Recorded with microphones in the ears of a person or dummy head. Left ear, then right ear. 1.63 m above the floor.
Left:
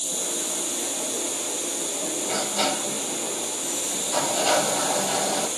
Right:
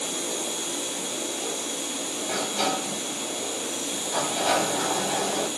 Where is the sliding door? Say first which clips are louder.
Left 1 dB; 25° left (ahead or behind), 1.5 m.